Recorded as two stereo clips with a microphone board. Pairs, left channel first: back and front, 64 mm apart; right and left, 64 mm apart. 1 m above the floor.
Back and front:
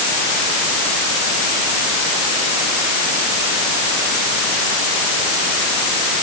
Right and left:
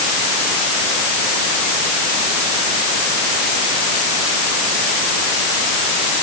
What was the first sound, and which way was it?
Only background noise.